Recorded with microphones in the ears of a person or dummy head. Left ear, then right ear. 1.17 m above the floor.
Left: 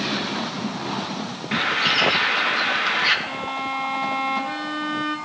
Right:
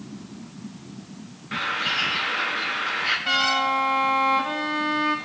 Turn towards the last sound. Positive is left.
turn(degrees=-40)  # may be behind; listen again after turning